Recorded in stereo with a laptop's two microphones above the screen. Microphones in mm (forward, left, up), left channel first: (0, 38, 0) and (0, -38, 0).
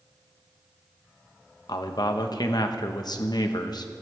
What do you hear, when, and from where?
1.7 s a man speaking: 60° left (ahead or behind), 1.1 m